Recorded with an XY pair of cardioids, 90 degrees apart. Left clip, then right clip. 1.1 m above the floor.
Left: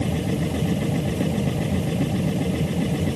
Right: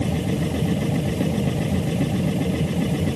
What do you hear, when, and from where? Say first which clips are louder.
0.0 s a machine running: right 1 dB; 5° right